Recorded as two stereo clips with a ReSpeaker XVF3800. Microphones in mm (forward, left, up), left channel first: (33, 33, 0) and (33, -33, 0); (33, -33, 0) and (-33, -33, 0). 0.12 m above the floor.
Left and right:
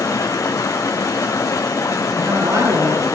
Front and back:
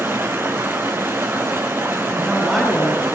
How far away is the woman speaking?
About 3 m.